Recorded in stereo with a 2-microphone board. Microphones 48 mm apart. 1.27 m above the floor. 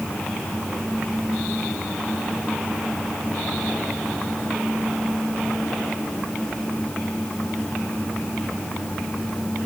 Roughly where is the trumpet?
I don't hear a trumpet.